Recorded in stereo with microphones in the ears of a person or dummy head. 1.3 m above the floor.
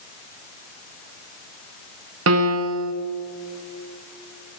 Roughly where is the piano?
Right.